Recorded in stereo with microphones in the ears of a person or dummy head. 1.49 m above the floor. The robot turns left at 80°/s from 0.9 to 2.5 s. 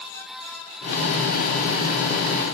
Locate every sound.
Only background noise.